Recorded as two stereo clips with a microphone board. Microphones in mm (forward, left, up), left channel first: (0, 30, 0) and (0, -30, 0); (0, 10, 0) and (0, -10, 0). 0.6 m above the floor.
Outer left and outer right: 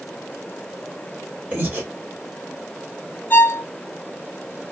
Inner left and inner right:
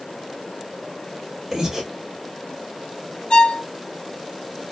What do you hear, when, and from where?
1.5 s breathing: 30° right (ahead or behind), 1.1 m
3.3 s a violin: 35° left (ahead or behind), 0.8 m